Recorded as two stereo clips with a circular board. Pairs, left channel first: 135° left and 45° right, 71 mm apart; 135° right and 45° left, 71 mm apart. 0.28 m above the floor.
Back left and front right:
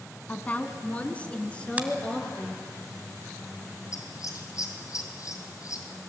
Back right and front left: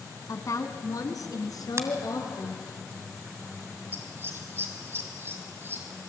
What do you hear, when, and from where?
0.3 s a woman speaking: 165° right, 2 m; by 2.7 s 150° right, 4.5 m
1.8 s a finger snap: 20° left, 1.9 m
3.9 s scissors: 100° left, 3 m